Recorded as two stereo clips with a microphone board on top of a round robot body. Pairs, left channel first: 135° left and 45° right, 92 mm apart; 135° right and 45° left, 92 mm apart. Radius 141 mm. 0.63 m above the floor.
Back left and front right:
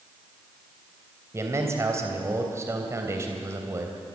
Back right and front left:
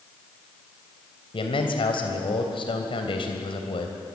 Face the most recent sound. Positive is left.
turn(degrees=-105)